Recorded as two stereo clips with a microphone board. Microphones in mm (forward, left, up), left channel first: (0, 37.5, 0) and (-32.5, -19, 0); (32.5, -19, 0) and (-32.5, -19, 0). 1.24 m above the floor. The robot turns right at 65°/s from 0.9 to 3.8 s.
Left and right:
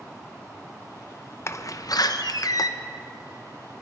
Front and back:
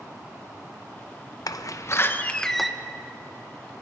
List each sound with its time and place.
1.5 s a door slam: 15° left, 0.6 m; by 2.7 s 95° left, 0.6 m